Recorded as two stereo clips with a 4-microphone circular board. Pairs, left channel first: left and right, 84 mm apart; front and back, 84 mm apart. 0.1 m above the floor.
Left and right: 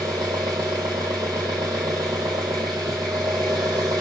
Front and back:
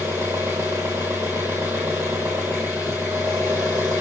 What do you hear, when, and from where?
0.0 s an engine running: 120° right, 1.4 m